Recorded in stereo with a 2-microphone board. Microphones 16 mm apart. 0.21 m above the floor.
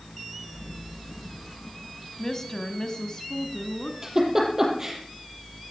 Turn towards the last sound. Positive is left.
turn(degrees=-30)  # may be behind; listen again after turning